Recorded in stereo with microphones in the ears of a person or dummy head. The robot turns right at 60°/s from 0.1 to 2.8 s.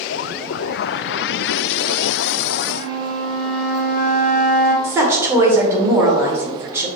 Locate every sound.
2.8 s a flute: 80° right, 1.5 m
4.8 s a woman speaking: 15° right (ahead or behind), 0.9 m